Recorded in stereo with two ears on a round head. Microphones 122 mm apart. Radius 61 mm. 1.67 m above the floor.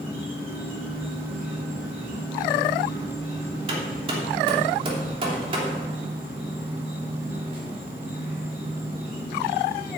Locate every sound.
0.0 s an insect: 45° right (ahead or behind), 5.5 m
3.7 s hammering: 40° right (ahead or behind), 3 m